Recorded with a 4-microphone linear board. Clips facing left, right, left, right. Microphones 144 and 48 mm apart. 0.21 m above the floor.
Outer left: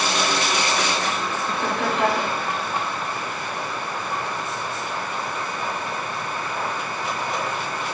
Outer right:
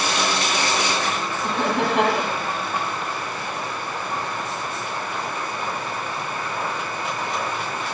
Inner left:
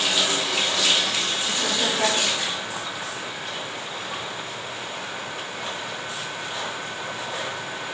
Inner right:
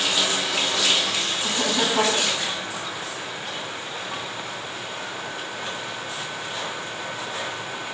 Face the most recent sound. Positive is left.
turn(degrees=-75)  # may be behind; listen again after turning